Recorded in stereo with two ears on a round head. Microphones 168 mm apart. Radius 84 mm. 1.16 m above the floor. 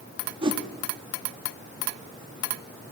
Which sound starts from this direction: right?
A whoosh, at 0.4 s.